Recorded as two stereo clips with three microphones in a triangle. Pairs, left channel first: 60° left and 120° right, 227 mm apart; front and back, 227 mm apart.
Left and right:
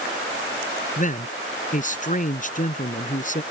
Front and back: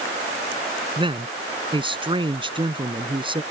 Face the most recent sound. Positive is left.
turn(degrees=110)